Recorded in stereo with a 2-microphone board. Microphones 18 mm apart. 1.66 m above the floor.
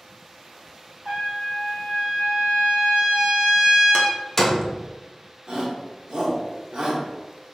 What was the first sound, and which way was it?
A trumpet, 55° right (ahead or behind).